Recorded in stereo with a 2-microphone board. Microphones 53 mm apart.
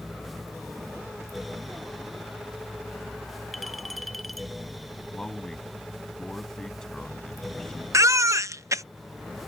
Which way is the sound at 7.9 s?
80° right.